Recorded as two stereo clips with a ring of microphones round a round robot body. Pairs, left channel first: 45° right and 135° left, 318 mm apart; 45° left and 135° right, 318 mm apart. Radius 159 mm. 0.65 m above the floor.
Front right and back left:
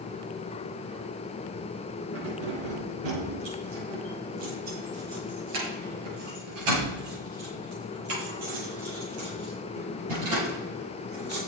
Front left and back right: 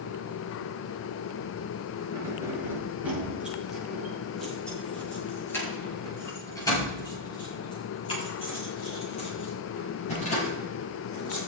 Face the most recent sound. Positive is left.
turn(degrees=115)